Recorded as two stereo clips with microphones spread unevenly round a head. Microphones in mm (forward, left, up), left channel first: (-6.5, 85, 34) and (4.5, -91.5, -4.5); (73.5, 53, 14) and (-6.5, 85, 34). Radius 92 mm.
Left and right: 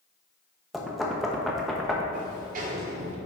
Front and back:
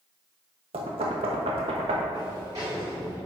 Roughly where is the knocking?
Behind.